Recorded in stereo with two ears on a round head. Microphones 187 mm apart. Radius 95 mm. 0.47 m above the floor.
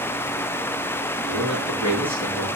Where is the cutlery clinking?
I don't hear cutlery clinking.